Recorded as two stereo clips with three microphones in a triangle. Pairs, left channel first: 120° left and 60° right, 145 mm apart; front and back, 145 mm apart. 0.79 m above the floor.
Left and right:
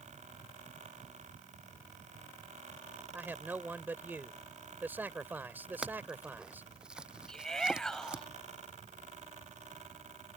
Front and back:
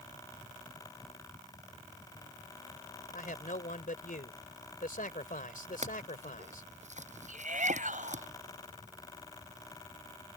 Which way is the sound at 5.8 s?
145° right.